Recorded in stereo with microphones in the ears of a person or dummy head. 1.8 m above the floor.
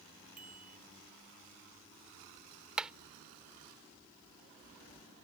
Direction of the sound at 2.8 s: 5° right (ahead or behind).